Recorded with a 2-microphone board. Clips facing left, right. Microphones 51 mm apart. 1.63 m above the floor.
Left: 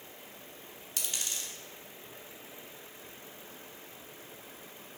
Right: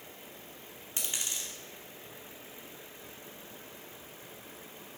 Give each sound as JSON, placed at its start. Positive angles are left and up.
{"t": 1.0, "sound": "a dropped coin", "side_deg": -20, "distance_m": 2.0}